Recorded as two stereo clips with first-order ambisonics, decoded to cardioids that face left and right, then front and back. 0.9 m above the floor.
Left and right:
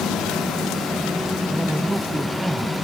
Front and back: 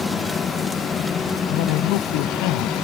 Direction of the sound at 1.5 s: 10° right.